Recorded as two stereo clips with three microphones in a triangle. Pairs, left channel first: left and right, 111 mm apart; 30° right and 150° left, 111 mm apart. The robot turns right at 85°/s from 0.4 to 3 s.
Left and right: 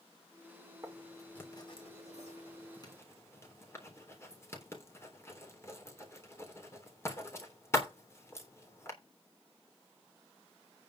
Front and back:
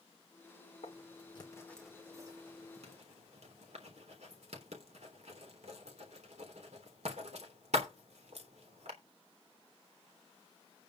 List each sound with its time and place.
0.8 s writing: 25° right, 3.5 m; by 8.9 s 155° left, 3.5 m